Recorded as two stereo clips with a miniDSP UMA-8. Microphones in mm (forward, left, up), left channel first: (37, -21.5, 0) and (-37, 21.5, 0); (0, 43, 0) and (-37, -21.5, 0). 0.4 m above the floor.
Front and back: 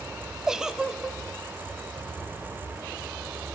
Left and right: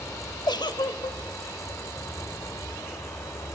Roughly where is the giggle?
Ahead left.